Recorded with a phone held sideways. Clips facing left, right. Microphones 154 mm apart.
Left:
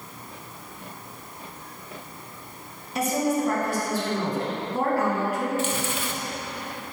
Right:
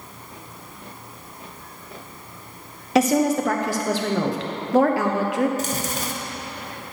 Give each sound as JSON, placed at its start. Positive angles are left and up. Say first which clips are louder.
{"t": 3.0, "sound": "a woman speaking", "louder": "right 6 dB", "side_deg": -75, "distance_m": 1.1}
{"t": 5.6, "sound": "chewing", "louder": "right 1 dB", "side_deg": -40, "distance_m": 0.6}